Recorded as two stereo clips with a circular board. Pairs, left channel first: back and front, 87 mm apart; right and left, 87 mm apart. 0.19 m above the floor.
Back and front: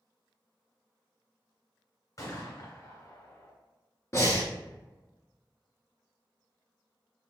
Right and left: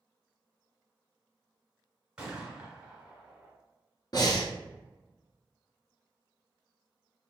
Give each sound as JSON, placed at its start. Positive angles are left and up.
{"t": 2.2, "sound": "a gunshot", "azimuth_deg": 165, "distance_m": 1.1}
{"t": 4.1, "sound": "breathing", "azimuth_deg": -130, "distance_m": 0.8}